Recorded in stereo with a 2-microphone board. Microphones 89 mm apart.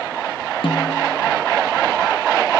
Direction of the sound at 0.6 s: 80° left.